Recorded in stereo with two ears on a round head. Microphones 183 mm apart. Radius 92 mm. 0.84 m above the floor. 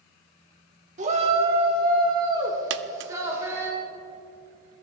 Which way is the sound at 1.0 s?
35° right (ahead or behind).